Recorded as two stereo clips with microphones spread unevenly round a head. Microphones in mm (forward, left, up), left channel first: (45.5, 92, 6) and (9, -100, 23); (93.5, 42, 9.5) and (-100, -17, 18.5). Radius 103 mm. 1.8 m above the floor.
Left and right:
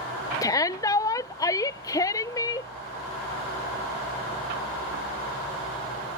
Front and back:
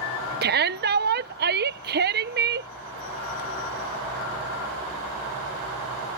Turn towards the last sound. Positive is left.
turn(degrees=155)